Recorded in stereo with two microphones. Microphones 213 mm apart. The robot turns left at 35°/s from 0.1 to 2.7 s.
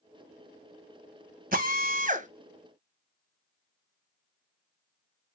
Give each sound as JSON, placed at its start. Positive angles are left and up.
{"t": 1.5, "sound": "a drill", "side_deg": -40, "distance_m": 0.8}